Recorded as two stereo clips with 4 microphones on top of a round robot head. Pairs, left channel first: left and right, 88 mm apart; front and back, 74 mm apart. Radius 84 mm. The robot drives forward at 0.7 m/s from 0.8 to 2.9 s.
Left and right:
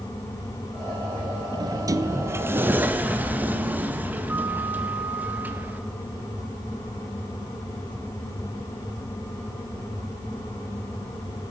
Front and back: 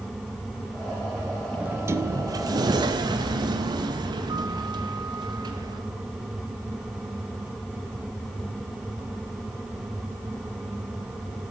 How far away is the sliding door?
About 0.6 m.